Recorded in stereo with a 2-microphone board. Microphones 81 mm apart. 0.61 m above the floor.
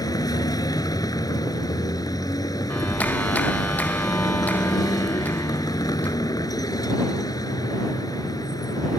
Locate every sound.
0.0 s a vehicle: 50° left (ahead or behind)
2.7 s a clap: 20° left (ahead or behind)